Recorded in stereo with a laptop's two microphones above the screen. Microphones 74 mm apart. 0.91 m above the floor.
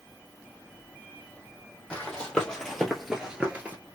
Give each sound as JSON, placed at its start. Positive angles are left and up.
{"t": 1.9, "sound": "running footsteps", "side_deg": 15, "distance_m": 2.0}